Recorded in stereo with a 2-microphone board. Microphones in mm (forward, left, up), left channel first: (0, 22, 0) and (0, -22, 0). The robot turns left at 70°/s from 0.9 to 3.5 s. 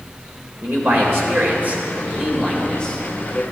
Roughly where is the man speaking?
Right.